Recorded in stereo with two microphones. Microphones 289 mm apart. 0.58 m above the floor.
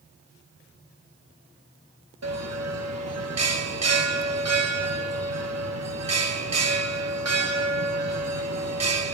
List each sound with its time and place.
2.2 s a bell: 65° right (ahead or behind), 0.6 m